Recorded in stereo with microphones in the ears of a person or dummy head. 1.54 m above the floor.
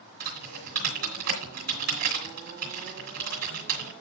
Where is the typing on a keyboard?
50° right (ahead or behind), 3 m.